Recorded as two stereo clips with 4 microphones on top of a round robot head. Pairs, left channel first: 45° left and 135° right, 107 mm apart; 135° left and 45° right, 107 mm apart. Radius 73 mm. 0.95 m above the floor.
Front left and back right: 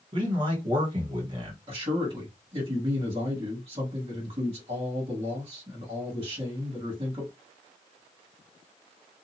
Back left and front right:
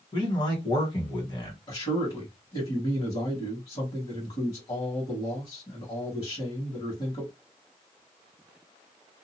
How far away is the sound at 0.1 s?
About 1.8 m.